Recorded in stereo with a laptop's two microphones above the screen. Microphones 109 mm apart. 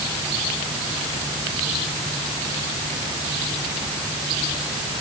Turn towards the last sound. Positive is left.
No sound to turn to.